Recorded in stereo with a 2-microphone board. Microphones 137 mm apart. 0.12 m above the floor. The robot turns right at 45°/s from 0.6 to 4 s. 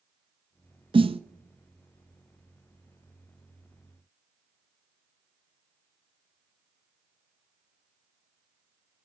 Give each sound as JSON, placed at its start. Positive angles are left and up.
{"t": 0.9, "sound": "a snare drum", "side_deg": -40, "distance_m": 0.6}